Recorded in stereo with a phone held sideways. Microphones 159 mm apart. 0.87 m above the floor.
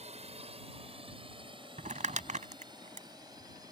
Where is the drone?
40° right (ahead or behind); by 3.7 s 25° right (ahead or behind).